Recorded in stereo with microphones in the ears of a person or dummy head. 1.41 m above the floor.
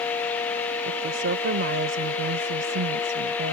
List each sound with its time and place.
0.8 s a woman speaking: 60° right (ahead or behind); by 3.5 s 55° right (ahead or behind)